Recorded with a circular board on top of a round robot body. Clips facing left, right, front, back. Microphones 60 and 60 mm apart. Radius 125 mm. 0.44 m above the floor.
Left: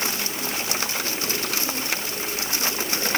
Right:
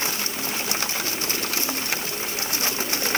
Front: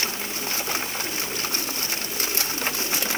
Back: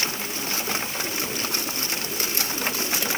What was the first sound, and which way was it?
Only background noise.